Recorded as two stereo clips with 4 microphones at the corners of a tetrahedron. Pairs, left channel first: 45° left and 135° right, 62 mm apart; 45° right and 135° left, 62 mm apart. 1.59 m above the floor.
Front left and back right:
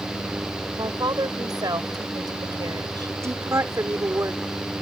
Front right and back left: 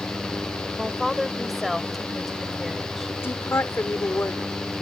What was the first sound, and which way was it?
A woman speaking, 135° right.